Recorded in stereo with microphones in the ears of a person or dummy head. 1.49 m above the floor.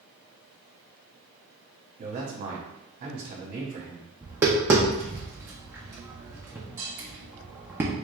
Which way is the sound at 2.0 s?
40° right (ahead or behind).